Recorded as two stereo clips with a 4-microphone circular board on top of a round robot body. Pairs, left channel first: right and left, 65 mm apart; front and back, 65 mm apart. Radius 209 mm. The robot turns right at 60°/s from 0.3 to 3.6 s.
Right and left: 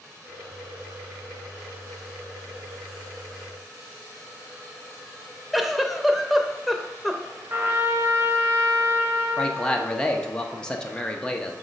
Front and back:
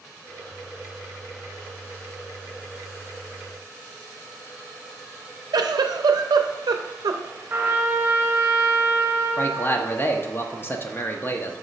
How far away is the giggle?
About 0.6 m.